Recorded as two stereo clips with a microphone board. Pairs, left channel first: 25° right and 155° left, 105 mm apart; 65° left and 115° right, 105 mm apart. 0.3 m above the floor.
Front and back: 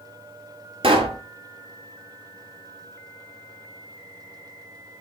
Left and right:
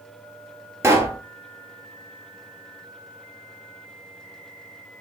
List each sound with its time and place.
0.8 s a pop: 175° right, 0.8 m